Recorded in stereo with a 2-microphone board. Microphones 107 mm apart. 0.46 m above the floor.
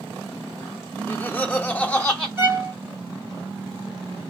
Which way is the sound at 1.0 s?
15° left (ahead or behind).